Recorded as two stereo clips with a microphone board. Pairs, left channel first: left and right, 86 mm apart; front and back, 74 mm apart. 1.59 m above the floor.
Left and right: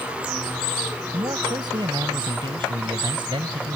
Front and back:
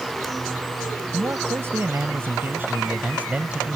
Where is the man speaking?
125° right; by 3.8 s 105° right.